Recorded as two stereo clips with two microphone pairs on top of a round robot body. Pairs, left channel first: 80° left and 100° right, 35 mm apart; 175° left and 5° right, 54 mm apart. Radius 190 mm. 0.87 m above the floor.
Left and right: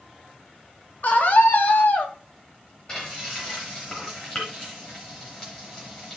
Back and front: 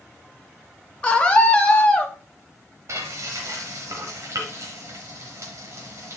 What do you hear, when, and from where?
1.0 s a scream: 105° left, 2 m
2.9 s frying: 25° left, 0.9 m